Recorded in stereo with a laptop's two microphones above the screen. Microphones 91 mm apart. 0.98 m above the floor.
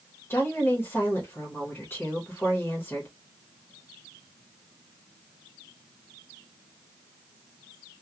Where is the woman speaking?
25° left (ahead or behind), 0.9 m.